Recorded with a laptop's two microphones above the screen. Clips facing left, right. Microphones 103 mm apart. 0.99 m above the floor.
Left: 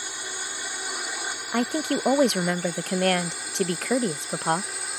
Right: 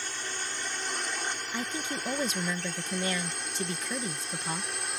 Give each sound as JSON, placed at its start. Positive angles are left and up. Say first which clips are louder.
{"t": 0.0, "sound": "a drone", "louder": "left 1 dB", "side_deg": 10}
{"t": 1.5, "sound": "a woman speaking", "louder": "left 14 dB", "side_deg": 65}